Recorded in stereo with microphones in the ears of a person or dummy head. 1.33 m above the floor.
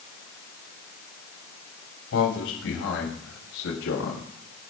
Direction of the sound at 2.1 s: 80° left.